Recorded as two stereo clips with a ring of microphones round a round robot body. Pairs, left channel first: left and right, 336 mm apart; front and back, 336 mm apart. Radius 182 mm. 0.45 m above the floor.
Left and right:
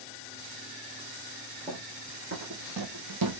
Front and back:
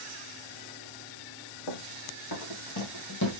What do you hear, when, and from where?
1.7 s running footsteps: 15° right, 1.4 m; by 3.4 s 55° right, 1.3 m